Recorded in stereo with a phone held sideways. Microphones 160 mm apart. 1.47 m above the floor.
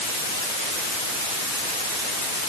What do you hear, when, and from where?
Only background noise.